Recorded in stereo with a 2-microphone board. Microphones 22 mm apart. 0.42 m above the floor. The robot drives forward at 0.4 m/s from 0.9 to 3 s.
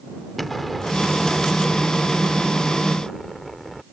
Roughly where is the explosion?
Centre.